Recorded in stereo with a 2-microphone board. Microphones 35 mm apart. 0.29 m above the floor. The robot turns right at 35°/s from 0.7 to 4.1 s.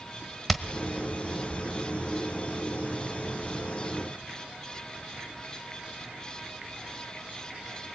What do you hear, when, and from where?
0.5 s hammering: 5° left (ahead or behind), 1.2 m